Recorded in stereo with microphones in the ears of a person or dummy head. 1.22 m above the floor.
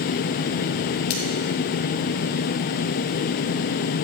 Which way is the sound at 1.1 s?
55° left (ahead or behind).